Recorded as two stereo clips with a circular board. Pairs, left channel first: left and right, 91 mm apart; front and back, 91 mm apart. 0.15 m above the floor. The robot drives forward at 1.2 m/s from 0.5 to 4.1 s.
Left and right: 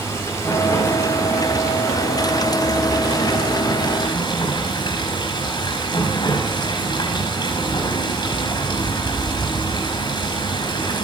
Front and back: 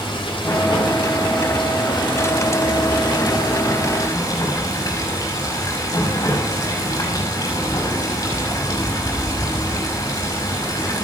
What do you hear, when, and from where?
0.0 s running water: 30° left, 8.5 m; by 11.1 s 55° left, 5.5 m